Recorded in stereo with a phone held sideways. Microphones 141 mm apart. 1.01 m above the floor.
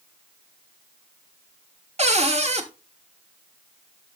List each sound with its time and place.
2.0 s a cupboard door: 50° right (ahead or behind), 1.0 m